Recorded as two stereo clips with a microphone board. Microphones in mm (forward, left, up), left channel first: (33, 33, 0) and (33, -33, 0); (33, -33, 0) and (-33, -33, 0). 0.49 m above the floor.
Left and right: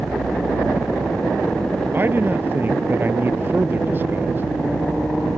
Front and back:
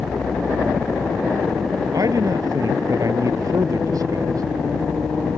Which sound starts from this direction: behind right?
A man speaking, at 1.9 s.